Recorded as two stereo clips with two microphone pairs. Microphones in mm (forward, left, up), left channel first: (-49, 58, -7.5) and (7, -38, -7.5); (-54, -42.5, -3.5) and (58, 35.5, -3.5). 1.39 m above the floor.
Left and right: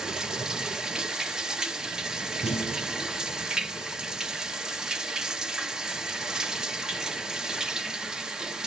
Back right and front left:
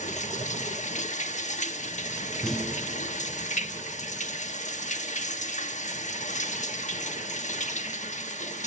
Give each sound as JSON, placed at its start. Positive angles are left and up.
{"t": 0.0, "sound": "running water", "azimuth_deg": -145, "distance_m": 1.2}
{"t": 2.4, "sound": "a clunk", "azimuth_deg": 130, "distance_m": 9.0}